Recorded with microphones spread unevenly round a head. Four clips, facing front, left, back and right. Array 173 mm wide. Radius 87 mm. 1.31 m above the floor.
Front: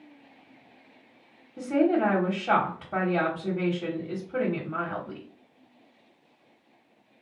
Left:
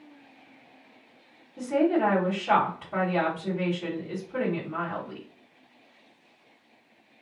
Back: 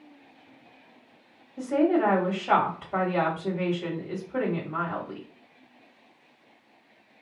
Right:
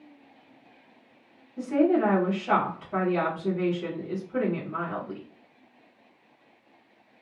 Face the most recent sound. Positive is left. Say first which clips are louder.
# right 1 dB, even
turn(degrees=10)